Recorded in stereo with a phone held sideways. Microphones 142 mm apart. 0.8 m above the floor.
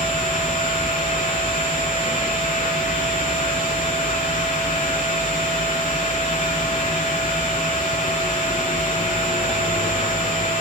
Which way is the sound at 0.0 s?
65° left (ahead or behind).